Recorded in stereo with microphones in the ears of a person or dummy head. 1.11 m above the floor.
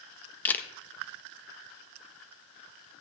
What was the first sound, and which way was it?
A camera shutter, 10° left (ahead or behind).